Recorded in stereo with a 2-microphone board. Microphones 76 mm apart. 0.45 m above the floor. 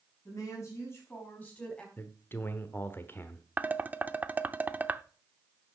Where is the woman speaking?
45° left (ahead or behind), 5 m; by 1.9 s 15° left (ahead or behind), 4 m.